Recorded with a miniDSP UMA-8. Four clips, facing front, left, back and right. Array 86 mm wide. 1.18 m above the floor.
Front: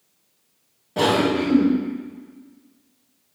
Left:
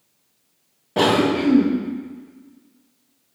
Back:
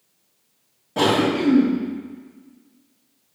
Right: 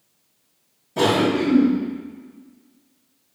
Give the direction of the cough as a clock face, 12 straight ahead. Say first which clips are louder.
Left 1 dB, even; 9 o'clock.